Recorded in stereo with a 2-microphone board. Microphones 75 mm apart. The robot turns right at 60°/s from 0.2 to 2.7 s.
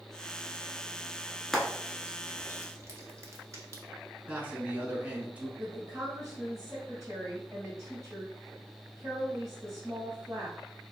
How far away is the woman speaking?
About 1.8 m.